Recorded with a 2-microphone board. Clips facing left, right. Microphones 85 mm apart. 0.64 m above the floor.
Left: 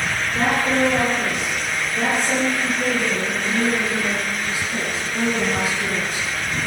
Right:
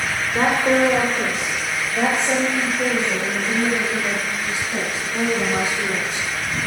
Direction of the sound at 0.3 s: 45° right (ahead or behind).